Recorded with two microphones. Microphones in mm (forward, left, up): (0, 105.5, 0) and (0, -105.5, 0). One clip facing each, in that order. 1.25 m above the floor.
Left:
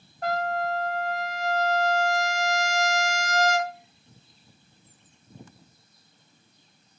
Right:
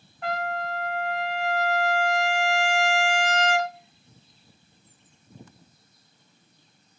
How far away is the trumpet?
About 0.6 m.